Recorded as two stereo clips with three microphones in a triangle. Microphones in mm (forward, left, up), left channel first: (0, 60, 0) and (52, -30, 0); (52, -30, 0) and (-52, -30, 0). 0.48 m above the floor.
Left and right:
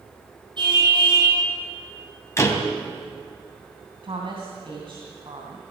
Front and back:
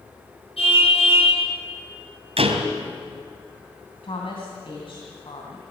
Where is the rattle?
I don't hear a rattle.